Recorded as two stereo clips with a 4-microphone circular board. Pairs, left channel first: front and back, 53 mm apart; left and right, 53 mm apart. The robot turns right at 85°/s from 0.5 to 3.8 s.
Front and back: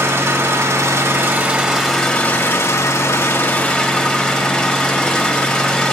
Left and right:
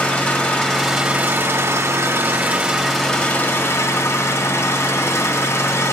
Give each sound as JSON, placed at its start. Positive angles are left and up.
{"t": 0.0, "sound": "an engine running", "azimuth_deg": 155, "distance_m": 1.6}